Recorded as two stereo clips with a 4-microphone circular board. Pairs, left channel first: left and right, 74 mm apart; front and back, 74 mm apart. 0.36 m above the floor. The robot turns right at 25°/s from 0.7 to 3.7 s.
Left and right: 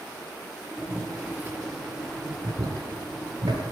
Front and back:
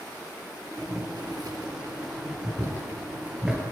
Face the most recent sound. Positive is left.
turn(degrees=-100)